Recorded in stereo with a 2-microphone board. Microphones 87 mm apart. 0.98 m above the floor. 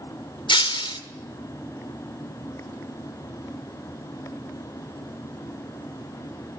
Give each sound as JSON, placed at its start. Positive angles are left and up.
{"t": 0.5, "sound": "breaking glass", "side_deg": 75, "distance_m": 1.9}